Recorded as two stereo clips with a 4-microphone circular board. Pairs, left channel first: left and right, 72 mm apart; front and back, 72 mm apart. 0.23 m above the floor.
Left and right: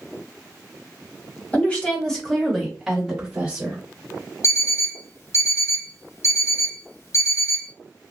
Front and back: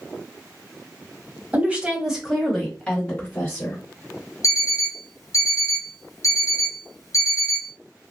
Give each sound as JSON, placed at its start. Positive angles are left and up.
{"t": 1.5, "sound": "a woman speaking", "azimuth_deg": 135, "distance_m": 1.3}
{"t": 4.4, "sound": "an alarm clock", "azimuth_deg": 45, "distance_m": 1.6}